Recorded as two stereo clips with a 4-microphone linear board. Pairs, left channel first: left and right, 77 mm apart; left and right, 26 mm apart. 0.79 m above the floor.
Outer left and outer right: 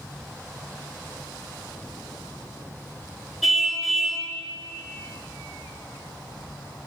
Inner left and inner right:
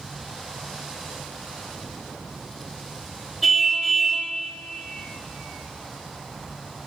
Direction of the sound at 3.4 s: Centre (ahead or behind).